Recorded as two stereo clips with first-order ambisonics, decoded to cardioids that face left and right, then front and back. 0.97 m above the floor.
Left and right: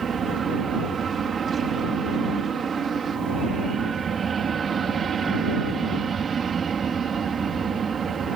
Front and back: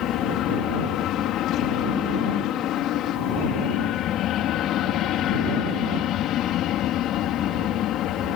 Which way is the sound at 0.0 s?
30° right.